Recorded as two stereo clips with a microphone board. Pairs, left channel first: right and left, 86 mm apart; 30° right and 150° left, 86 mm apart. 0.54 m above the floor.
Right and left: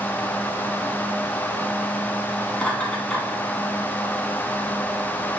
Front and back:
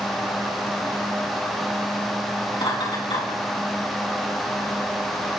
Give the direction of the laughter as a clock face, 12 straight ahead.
12 o'clock.